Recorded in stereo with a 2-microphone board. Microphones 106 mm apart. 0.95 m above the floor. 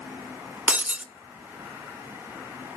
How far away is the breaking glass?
About 0.5 m.